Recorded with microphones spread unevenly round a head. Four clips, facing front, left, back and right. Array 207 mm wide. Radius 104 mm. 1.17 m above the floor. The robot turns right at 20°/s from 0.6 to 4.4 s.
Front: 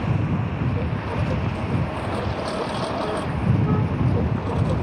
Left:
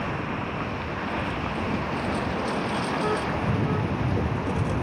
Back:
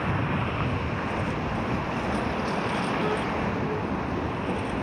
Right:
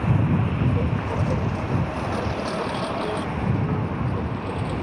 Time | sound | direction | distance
0.0 | a lawn mower | 65° right | ?